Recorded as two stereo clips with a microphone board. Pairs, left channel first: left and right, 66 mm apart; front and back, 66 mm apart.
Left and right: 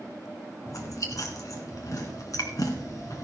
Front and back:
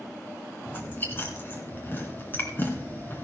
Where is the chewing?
55° left, 2.5 m.